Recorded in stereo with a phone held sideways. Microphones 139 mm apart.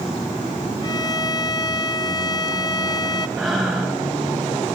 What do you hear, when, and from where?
0.8 s a violin: 30° left (ahead or behind), 1.0 m
3.4 s breathing: centre (ahead or behind), 6 m